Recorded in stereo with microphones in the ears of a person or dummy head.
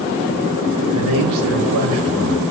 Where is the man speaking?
70° right (ahead or behind), 4 m.